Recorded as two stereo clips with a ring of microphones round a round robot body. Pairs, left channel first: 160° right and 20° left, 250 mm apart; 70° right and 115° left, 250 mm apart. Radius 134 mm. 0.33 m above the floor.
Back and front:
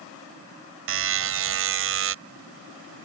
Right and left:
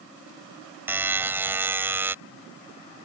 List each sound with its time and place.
0.9 s a buzzer: 30° left